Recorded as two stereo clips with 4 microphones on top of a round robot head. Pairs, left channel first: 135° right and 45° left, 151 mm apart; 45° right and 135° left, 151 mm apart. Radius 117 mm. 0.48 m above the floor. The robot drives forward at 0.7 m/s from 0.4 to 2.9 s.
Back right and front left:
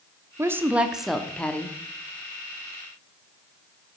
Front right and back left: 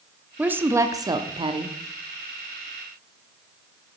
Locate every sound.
0.4 s a woman speaking: 75° left, 1.2 m; by 1.8 s 155° left, 1.5 m